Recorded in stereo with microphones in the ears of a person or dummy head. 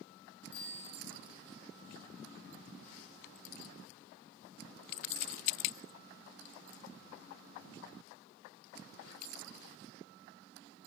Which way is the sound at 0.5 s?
50° left (ahead or behind).